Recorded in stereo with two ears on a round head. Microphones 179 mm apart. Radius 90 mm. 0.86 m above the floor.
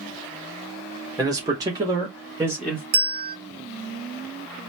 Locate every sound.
1.2 s a man speaking: 20° right (ahead or behind), 0.8 m; by 2.8 s 10° right (ahead or behind), 1.5 m
2.9 s a bell: 50° right (ahead or behind), 0.7 m